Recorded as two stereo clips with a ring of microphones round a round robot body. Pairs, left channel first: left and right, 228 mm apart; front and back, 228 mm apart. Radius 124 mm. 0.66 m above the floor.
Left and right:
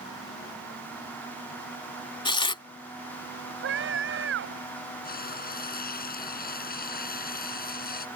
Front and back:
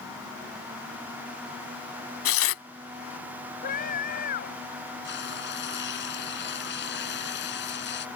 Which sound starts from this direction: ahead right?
A scream, at 3.6 s.